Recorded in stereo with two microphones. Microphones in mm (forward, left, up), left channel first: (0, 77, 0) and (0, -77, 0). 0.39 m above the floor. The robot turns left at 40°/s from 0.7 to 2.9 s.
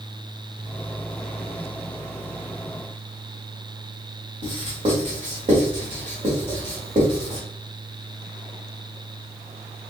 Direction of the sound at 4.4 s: 50° right (ahead or behind).